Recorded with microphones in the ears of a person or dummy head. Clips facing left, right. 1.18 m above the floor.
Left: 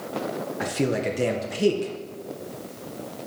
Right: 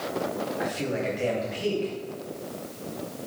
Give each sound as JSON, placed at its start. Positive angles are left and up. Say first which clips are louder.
{"t": 0.6, "sound": "a man speaking", "louder": "left 6 dB", "side_deg": 55, "distance_m": 0.9}